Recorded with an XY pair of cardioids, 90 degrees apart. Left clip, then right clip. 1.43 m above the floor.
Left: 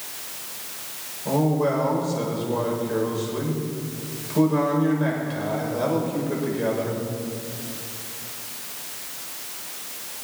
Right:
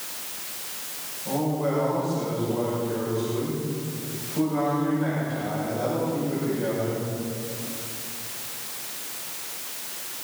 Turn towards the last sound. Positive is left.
turn(degrees=65)